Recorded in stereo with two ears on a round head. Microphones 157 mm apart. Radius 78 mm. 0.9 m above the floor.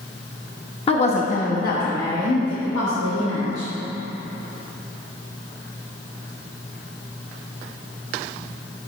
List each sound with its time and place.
0.9 s a woman speaking: 35° left (ahead or behind), 1.0 m; by 3.7 s 75° left (ahead or behind), 1.8 m